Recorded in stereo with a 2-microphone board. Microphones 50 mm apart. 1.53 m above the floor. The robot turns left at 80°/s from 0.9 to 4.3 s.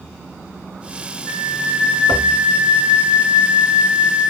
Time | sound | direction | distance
1.3 | a flute | 65° left | 2.5 m